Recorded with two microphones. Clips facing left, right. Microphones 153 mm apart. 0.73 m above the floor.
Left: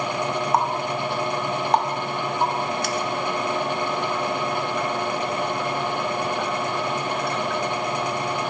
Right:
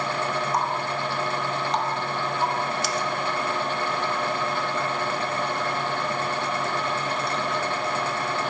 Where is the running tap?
60° left (ahead or behind), 0.6 m.